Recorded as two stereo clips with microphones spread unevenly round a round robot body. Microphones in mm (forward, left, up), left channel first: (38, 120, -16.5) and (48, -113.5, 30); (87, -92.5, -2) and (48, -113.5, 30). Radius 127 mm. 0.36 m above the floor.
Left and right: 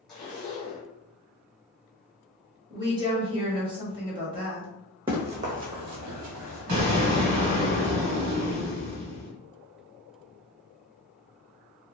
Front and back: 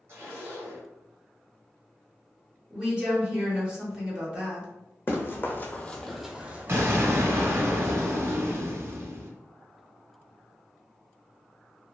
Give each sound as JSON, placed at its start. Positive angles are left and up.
{"t": 0.1, "sound": "a zipper", "azimuth_deg": 140, "distance_m": 1.0}
{"t": 2.7, "sound": "a woman speaking", "azimuth_deg": -15, "distance_m": 1.2}
{"t": 5.1, "sound": "running footsteps", "azimuth_deg": -25, "distance_m": 1.2}
{"t": 6.7, "sound": "an explosion", "azimuth_deg": -100, "distance_m": 0.9}